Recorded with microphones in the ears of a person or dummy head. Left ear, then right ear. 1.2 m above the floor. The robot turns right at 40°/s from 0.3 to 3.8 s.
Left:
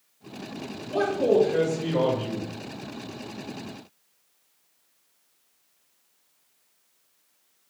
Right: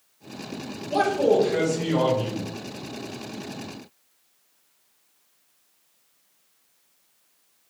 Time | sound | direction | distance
0.9 | a man speaking | 60° right | 1.0 m